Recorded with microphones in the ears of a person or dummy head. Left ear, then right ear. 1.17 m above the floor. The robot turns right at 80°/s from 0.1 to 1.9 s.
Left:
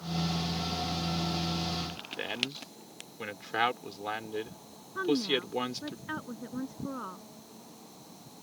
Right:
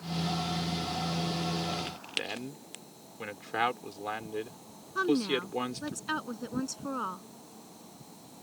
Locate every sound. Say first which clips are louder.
2.2 s a man speaking: left 2 dB; 10° left (ahead or behind)
5.0 s a woman speaking: right 1 dB; 80° right